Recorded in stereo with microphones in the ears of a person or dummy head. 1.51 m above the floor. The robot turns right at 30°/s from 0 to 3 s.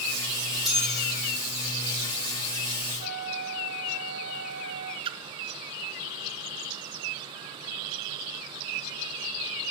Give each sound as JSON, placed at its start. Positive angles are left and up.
{"t": 0.7, "sound": "a bell", "side_deg": -5, "distance_m": 7.5}
{"t": 3.0, "sound": "a flute", "side_deg": -65, "distance_m": 1.2}
{"t": 5.0, "sound": "a splash", "side_deg": -30, "distance_m": 0.8}